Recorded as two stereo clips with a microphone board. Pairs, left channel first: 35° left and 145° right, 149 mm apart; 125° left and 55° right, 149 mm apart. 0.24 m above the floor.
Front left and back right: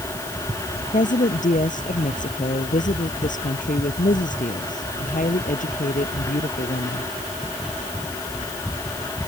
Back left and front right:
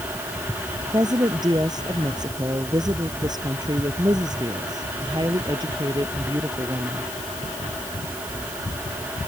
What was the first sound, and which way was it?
A woman speaking, 5° left.